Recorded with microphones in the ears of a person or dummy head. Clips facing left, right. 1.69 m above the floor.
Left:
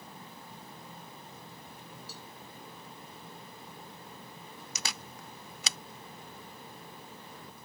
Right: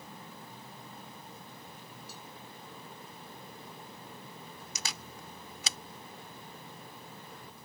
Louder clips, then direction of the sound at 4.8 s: Left 2 dB; 60° left (ahead or behind).